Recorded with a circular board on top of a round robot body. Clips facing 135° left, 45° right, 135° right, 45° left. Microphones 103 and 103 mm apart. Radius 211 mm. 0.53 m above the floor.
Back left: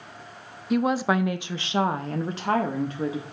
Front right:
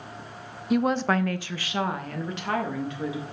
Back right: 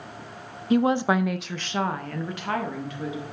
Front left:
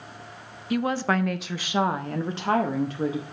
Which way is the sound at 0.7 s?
130° right.